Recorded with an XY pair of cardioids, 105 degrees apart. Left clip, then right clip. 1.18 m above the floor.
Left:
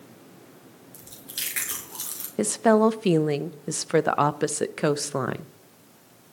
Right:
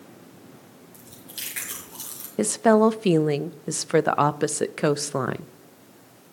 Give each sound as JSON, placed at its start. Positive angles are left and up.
{"t": 0.9, "sound": "chewing", "azimuth_deg": 35, "distance_m": 5.0}
{"t": 2.4, "sound": "a woman speaking", "azimuth_deg": -5, "distance_m": 0.5}